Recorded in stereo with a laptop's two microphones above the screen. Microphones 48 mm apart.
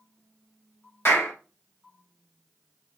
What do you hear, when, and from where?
1.1 s a clap: 55° left (ahead or behind), 2.5 m